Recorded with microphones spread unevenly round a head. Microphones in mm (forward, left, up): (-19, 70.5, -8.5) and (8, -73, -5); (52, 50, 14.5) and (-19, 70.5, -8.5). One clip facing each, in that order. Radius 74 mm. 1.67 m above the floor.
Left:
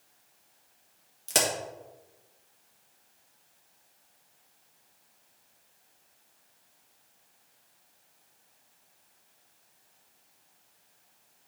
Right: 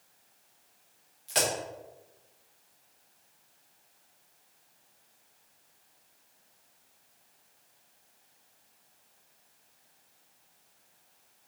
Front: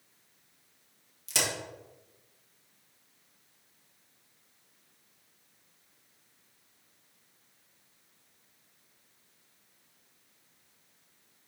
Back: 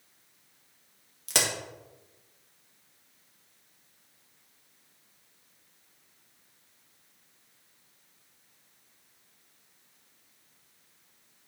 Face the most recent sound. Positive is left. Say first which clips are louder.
# left 1 dB, back 3 dB
turn(degrees=130)